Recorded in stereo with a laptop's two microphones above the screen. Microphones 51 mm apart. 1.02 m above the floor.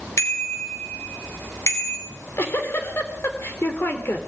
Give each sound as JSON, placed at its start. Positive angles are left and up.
{"t": 0.2, "sound": "a bicycle bell", "side_deg": 80, "distance_m": 3.0}
{"t": 2.1, "sound": "a giggle", "side_deg": 55, "distance_m": 3.0}